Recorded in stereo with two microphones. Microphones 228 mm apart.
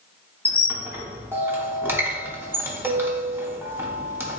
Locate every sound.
0.5 s a squeak: 10° right (ahead or behind), 0.6 m